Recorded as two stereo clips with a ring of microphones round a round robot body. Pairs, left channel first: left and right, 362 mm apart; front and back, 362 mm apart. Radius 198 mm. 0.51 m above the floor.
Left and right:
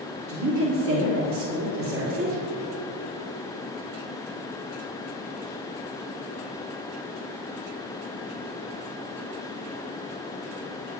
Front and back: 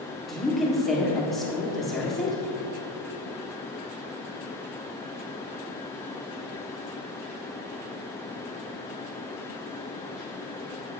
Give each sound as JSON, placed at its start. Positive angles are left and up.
{"t": 0.3, "sound": "a woman speaking", "azimuth_deg": -90, "distance_m": 1.5}